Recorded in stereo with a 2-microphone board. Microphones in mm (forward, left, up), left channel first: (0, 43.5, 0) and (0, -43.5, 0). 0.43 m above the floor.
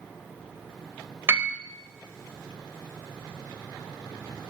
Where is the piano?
25° right (ahead or behind), 0.9 m.